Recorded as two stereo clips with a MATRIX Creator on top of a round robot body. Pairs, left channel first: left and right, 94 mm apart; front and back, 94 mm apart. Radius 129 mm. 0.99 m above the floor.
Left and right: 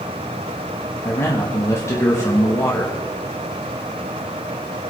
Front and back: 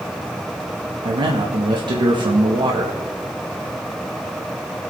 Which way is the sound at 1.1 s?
145° left.